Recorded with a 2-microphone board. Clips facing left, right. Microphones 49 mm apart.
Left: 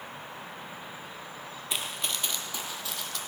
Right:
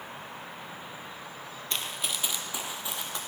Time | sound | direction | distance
1.7 | running footsteps | 10° left (ahead or behind) | 1.1 m